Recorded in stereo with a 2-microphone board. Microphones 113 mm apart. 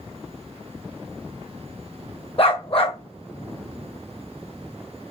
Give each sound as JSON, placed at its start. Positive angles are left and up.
{"t": 2.4, "sound": "a dog barking", "side_deg": 55, "distance_m": 1.5}